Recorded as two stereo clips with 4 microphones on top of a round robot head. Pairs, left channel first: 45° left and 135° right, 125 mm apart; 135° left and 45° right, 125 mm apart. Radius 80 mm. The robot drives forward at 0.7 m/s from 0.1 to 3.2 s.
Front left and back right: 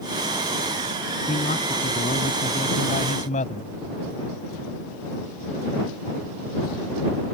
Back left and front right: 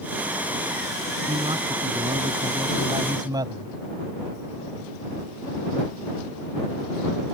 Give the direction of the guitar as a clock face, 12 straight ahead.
No guitar in this recording.